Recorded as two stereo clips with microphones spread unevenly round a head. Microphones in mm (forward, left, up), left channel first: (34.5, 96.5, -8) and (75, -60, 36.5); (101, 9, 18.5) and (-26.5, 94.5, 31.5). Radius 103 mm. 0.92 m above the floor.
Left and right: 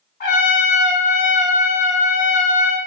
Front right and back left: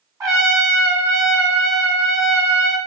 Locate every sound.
0.2 s a trumpet: 80° left, 1.2 m